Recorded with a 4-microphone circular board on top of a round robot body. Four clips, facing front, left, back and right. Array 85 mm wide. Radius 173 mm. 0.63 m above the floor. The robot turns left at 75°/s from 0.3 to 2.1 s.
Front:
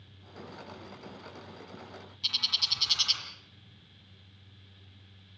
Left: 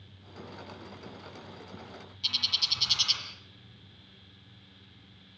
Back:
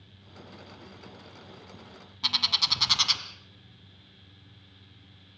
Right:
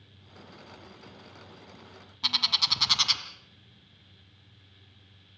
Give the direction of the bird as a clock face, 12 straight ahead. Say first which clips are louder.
Right 8 dB, back 9 dB; 5 o'clock.